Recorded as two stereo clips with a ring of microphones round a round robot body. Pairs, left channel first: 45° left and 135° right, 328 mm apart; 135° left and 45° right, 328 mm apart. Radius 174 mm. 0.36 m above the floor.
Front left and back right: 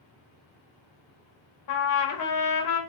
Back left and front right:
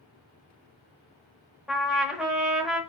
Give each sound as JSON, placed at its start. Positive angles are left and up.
{"t": 1.7, "sound": "a trumpet", "azimuth_deg": 45, "distance_m": 1.3}